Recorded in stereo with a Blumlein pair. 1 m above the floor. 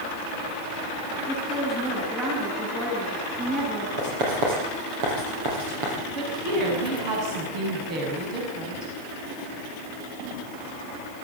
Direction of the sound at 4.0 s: 45° right.